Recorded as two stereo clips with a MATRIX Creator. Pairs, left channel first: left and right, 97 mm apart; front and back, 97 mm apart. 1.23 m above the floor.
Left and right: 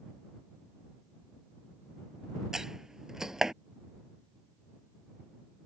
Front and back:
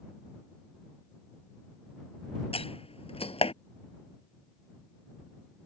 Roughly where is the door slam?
Ahead.